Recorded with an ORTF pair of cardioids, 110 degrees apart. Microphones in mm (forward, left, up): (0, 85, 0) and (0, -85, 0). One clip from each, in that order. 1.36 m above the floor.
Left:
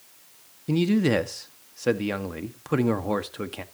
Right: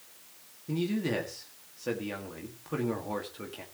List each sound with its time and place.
0.7 s a man speaking: 50° left, 1.9 m